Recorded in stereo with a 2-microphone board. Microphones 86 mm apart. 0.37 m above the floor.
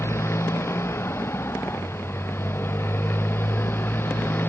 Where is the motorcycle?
35° left (ahead or behind); by 4.5 s 25° left (ahead or behind).